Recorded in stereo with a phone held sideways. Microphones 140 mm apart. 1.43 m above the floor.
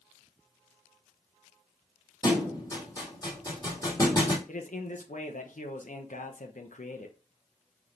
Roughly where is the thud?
Left.